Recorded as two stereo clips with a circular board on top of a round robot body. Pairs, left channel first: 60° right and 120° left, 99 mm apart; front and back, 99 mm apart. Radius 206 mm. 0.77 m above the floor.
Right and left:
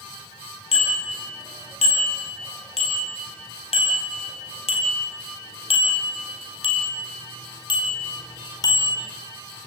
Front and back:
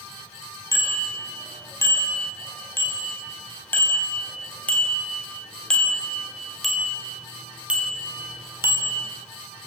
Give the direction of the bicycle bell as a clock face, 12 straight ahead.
2 o'clock.